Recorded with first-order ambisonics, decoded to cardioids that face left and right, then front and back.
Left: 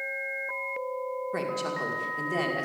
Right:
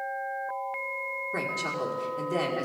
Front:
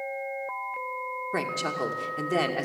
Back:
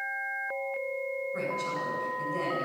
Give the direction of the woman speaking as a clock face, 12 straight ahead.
12 o'clock.